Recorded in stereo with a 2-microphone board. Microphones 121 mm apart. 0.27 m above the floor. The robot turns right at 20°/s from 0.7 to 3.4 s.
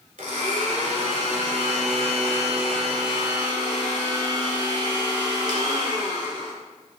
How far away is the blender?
About 1.1 m.